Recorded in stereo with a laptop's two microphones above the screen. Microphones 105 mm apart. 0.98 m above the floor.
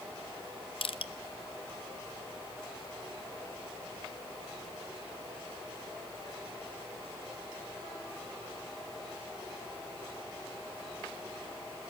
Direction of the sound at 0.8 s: 65° left (ahead or behind).